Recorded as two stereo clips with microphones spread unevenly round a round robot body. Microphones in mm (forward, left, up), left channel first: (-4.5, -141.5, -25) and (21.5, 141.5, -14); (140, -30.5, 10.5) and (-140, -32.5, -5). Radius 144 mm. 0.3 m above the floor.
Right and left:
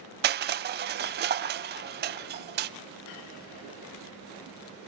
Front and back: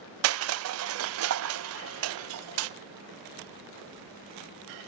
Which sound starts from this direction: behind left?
Crushing, at 0.2 s.